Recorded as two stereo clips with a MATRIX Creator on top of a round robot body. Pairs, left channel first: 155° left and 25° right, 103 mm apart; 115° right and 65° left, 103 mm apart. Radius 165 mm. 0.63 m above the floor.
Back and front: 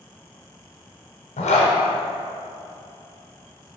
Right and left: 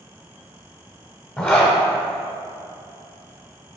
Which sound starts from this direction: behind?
A zipper, at 1.4 s.